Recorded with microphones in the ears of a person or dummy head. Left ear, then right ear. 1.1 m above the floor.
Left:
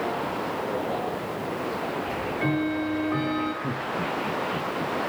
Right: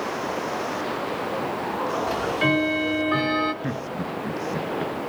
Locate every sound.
2.1 s ticking: 40° right (ahead or behind), 1.8 m
3.6 s laughter: 70° right (ahead or behind), 2 m